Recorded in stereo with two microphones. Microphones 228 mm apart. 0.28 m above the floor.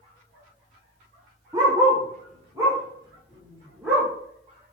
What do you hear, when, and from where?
1.5 s a dog barking: 15° right (ahead or behind), 4.5 m; by 4.1 s 5° right (ahead or behind), 6 m